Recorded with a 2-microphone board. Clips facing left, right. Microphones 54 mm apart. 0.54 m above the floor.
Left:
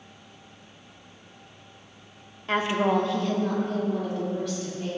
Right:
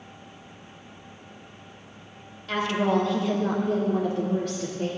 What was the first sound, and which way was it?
A woman speaking, 30° left (ahead or behind).